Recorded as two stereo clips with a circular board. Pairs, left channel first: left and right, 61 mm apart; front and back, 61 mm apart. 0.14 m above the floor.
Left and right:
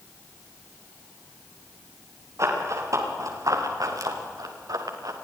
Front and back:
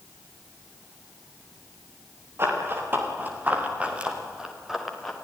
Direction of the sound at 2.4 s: 130° right.